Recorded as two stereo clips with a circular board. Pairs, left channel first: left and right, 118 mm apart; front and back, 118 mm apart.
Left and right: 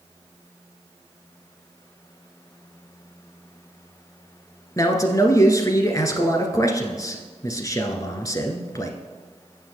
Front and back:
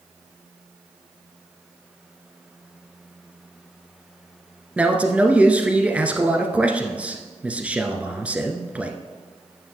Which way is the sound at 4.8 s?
110° left.